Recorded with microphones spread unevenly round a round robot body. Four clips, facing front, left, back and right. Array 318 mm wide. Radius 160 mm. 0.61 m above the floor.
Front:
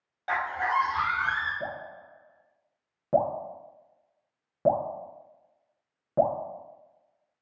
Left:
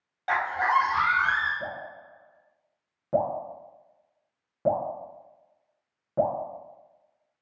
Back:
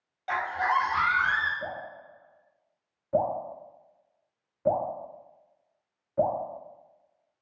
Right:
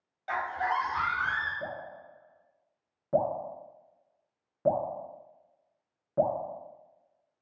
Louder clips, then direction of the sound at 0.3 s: Left 6 dB, back 1 dB; 55° left.